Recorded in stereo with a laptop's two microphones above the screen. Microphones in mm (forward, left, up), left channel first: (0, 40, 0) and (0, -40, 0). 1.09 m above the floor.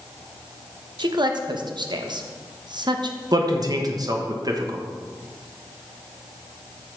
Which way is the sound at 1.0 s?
65° right (ahead or behind).